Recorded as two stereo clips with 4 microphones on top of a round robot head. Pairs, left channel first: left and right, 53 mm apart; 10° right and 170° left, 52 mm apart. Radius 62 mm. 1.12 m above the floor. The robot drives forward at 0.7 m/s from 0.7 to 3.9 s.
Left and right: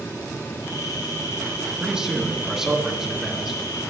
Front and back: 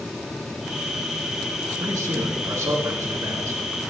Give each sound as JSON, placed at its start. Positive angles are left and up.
{"t": 1.8, "sound": "a man speaking", "azimuth_deg": -165, "distance_m": 1.4}